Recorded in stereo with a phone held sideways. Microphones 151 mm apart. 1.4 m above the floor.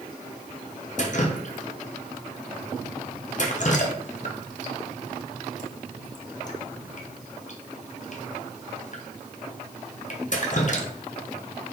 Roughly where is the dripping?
Left.